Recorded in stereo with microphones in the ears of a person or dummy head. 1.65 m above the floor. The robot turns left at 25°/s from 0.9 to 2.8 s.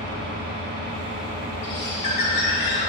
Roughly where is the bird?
Left.